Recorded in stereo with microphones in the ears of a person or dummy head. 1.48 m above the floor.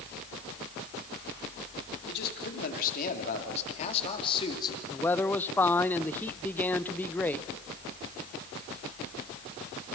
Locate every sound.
2.1 s a man speaking: 55° left (ahead or behind), 3.5 m; by 4.8 s 20° left (ahead or behind), 3 m
4.9 s a man speaking: 5° left (ahead or behind), 0.6 m